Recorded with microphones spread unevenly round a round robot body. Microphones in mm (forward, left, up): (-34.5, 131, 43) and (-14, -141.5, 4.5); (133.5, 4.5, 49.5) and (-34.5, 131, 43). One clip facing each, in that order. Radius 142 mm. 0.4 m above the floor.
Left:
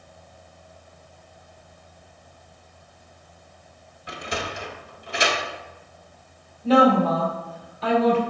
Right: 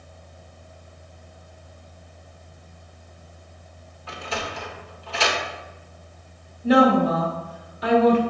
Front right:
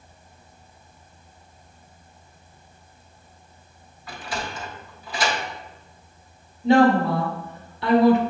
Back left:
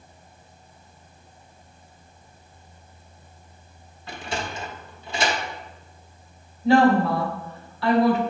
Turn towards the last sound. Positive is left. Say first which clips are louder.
# right 1 dB, front right 1 dB
turn(degrees=-70)